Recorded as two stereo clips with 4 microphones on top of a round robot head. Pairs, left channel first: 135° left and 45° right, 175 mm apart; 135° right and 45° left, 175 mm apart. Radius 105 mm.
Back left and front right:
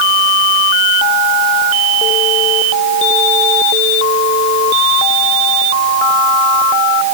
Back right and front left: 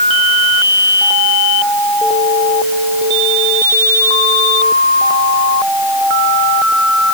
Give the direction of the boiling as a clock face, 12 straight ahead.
No boiling in this recording.